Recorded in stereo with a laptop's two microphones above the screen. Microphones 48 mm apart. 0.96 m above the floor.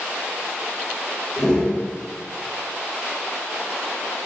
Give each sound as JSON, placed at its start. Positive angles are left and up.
{"t": 1.4, "sound": "a whoosh", "side_deg": 25, "distance_m": 1.2}